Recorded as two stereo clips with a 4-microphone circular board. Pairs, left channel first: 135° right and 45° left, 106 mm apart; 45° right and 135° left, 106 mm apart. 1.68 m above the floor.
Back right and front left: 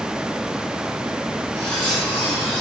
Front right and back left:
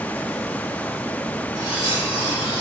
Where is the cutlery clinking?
170° right, 5.5 m.